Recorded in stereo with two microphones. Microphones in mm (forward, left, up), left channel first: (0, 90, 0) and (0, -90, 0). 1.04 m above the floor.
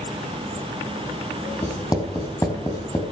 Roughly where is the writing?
Left.